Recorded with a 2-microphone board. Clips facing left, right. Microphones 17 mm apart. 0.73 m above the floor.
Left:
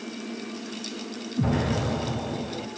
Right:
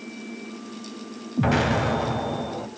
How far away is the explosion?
About 1.1 m.